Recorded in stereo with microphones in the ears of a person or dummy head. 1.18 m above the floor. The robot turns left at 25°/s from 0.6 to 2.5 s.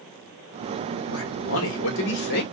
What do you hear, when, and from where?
1.1 s a man speaking: 90° left, 2 m; by 2.4 s 60° left, 2 m